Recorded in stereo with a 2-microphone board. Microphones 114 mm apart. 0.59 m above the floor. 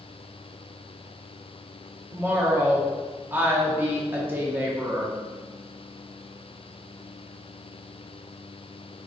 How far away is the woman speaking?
About 0.7 m.